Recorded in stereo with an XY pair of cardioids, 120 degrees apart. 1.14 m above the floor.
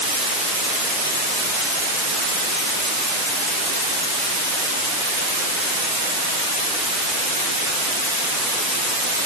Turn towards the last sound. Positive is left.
No sound to turn to.